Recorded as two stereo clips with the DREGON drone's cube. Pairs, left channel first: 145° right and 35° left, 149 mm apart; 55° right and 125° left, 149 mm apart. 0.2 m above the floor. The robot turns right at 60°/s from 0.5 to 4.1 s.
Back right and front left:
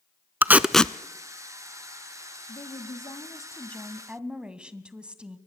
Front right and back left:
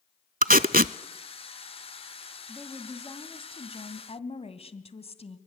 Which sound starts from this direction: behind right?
A woman speaking, at 2.5 s.